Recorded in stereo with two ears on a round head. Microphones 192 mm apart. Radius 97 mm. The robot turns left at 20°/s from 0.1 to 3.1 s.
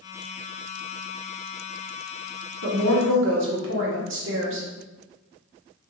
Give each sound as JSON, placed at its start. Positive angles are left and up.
{"t": 2.6, "sound": "a woman speaking", "side_deg": -65, "distance_m": 1.1}